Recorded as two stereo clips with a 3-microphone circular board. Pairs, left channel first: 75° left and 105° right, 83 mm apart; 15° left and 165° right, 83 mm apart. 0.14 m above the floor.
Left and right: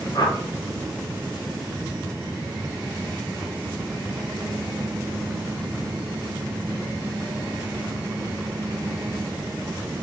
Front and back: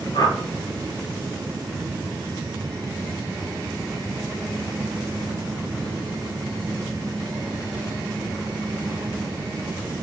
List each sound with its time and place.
0.1 s a whoosh: 45° left, 1.6 m